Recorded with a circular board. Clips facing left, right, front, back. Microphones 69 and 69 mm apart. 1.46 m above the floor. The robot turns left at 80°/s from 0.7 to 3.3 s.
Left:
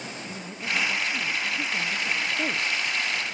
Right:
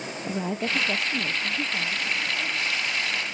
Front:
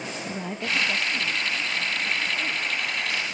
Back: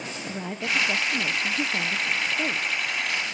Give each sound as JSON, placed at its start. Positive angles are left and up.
{"t": 0.3, "sound": "a woman speaking", "azimuth_deg": -90, "distance_m": 0.9}